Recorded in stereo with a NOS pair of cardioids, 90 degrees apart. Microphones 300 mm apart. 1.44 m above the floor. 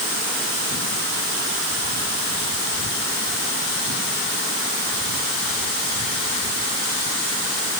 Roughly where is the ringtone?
No ringtone in this recording.